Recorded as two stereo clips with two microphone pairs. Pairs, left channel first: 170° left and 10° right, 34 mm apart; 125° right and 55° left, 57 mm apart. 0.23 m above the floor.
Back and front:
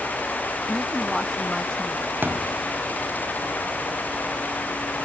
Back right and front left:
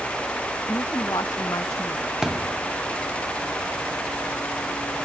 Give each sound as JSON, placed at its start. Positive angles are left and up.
{"t": 0.7, "sound": "a woman speaking", "azimuth_deg": -115}
{"t": 2.2, "sound": "a thud", "azimuth_deg": -20}